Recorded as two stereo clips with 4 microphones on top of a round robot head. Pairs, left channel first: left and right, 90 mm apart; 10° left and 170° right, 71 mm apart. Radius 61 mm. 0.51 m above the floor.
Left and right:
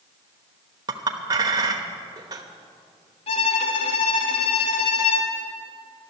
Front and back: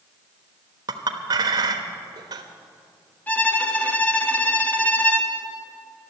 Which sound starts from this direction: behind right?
A clink, at 0.9 s.